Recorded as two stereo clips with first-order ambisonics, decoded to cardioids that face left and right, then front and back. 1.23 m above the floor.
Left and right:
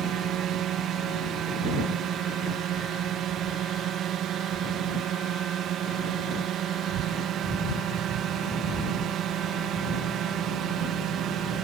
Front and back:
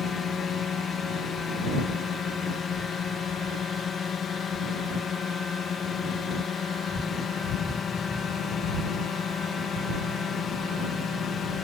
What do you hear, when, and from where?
0.0 s a drone: 55° right